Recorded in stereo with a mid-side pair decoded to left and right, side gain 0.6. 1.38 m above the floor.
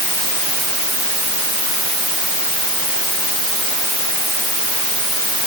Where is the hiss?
I don't hear a hiss.